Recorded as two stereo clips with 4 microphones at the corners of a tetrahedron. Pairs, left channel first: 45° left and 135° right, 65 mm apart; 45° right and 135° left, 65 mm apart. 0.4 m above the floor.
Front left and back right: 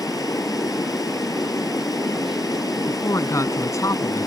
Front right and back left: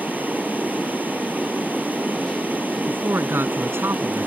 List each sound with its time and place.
0.0 s running water: 70° left
2.9 s a man speaking: 80° left